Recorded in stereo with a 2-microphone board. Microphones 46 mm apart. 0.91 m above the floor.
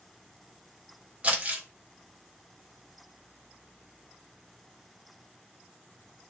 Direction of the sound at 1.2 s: 25° right (ahead or behind).